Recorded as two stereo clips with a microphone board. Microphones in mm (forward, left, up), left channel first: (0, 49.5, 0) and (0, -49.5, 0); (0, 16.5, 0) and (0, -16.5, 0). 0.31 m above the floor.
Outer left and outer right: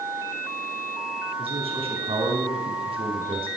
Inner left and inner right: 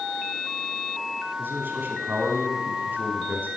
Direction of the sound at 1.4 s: 65° right (ahead or behind).